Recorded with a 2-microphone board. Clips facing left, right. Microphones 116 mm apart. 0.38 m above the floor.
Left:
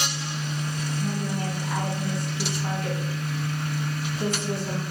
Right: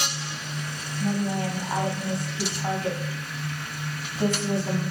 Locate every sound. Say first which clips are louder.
1.0 s a woman speaking: right 5 dB; 30° right (ahead or behind), 2.5 m